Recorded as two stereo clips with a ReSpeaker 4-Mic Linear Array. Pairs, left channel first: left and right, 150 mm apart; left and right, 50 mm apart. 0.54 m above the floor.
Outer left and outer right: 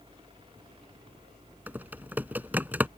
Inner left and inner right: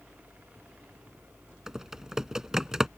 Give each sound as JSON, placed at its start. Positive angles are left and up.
{"t": 1.7, "sound": "typing on a keyboard", "side_deg": -10}